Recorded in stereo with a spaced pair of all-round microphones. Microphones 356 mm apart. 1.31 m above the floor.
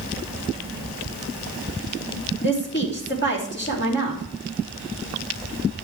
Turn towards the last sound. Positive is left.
turn(degrees=30)  # may be behind; listen again after turning